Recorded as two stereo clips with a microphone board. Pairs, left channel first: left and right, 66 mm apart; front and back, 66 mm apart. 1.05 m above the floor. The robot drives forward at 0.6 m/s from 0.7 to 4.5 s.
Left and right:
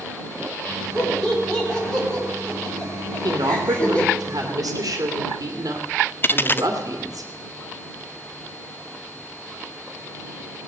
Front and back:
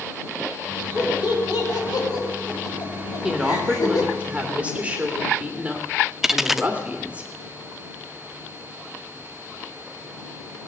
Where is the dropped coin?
100° left, 0.6 m.